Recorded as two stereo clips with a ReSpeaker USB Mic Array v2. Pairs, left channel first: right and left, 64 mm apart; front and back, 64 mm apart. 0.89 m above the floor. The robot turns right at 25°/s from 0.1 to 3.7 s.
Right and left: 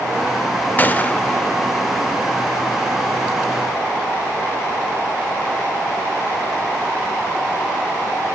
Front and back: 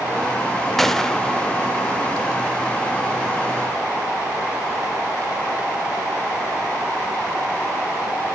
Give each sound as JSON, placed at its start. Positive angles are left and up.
{"t": 0.8, "sound": "a gunshot", "azimuth_deg": -85, "distance_m": 0.6}